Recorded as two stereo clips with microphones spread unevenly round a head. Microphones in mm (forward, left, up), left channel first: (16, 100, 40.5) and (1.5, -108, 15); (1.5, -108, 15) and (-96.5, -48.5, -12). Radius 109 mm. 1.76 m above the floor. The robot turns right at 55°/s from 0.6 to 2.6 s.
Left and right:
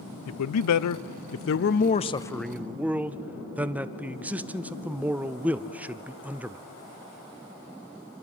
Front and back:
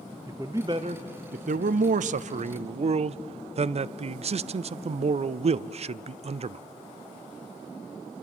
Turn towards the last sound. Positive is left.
turn(degrees=-175)